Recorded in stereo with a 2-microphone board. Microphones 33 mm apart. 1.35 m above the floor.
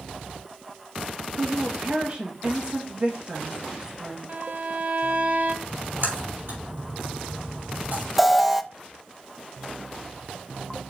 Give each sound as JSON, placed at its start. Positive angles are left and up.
{"t": 1.4, "sound": "a woman speaking", "side_deg": -35, "distance_m": 2.0}
{"t": 4.3, "sound": "a violin", "side_deg": -45, "distance_m": 0.8}
{"t": 5.7, "sound": "a splash", "side_deg": -75, "distance_m": 4.5}
{"t": 8.2, "sound": "an alarm", "side_deg": 0, "distance_m": 0.6}